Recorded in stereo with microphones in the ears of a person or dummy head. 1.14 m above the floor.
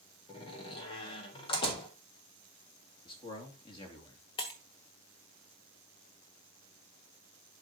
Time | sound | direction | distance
0.3 | a door slam | 30° left (ahead or behind) | 1.8 m
3.0 | a man speaking | 30° left (ahead or behind) | 2.5 m
4.4 | breaking glass | 25° left (ahead or behind) | 1.4 m